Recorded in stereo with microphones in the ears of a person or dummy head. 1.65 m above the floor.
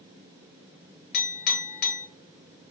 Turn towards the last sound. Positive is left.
turn(degrees=45)  # may be behind; listen again after turning